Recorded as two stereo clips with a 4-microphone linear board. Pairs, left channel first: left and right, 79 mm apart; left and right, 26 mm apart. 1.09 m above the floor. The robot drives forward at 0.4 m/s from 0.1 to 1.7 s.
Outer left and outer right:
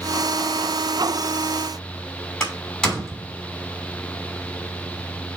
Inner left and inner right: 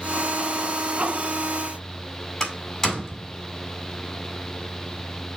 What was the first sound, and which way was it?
A door slam, 5° left (ahead or behind).